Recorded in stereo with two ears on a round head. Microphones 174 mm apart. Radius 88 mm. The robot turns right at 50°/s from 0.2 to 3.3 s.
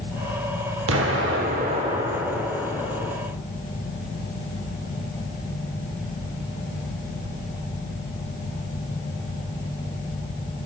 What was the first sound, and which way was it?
An explosion, 80° right.